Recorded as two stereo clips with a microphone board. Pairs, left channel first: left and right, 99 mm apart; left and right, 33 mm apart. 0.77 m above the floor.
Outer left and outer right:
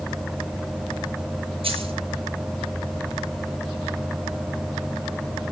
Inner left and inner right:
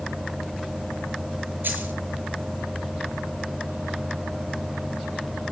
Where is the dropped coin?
65° right (ahead or behind), 6 m.